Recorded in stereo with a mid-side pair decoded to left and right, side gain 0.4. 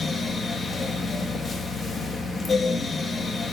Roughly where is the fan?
Ahead left.